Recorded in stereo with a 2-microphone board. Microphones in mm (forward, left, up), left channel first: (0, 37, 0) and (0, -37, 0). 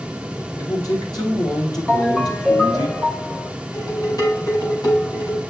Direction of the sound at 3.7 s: 65° left (ahead or behind).